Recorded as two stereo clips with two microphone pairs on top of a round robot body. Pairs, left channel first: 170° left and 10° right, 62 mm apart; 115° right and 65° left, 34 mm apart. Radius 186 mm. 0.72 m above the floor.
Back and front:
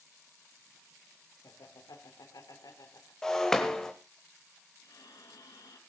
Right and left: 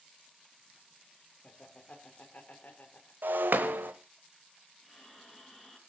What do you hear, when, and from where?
1.4 s laughter: 175° right, 2 m; by 3.1 s 155° right, 3 m
3.2 s breaking glass: 90° left, 0.8 m
4.8 s breathing: 165° left, 4 m